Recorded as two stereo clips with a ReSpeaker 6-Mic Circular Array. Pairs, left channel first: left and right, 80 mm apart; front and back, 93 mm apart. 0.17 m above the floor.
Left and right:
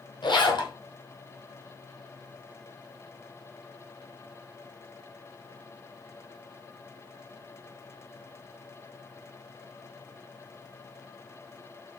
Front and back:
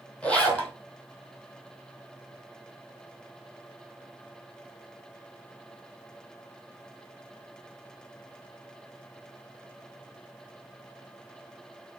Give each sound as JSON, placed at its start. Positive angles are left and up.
{"t": 0.2, "sound": "a zipper", "azimuth_deg": 80, "distance_m": 1.8}